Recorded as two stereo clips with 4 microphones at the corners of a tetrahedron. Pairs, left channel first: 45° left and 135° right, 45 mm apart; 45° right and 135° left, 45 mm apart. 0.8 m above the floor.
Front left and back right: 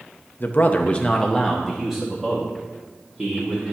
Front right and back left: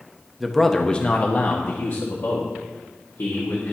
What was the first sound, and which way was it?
A man speaking, 50° left.